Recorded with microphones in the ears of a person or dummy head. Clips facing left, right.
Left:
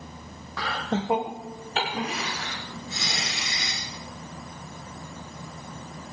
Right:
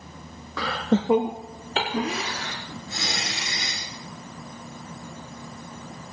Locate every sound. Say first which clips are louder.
0.6 s laughter: right 5 dB; 65° right (ahead or behind), 0.6 m; by 3.8 s 45° right (ahead or behind), 2.5 m